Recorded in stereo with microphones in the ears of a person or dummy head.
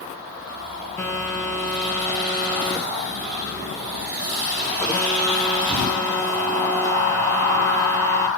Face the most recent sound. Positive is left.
turn(degrees=15)  # may be behind; listen again after turning